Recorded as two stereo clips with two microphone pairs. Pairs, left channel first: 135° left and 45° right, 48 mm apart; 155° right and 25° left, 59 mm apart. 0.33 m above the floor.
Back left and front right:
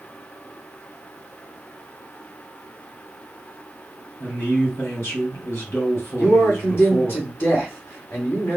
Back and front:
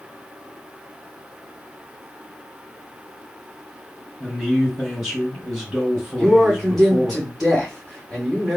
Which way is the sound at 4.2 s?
110° left.